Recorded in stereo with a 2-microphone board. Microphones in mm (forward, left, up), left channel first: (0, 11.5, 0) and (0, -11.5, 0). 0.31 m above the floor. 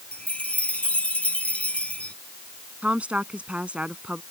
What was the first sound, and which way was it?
A chime, 70° left (ahead or behind).